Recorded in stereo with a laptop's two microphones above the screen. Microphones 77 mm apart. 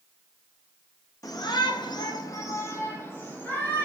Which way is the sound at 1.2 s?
50° left (ahead or behind).